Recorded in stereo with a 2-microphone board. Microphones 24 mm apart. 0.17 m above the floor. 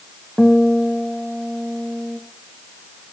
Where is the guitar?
5° right (ahead or behind), 3.5 m.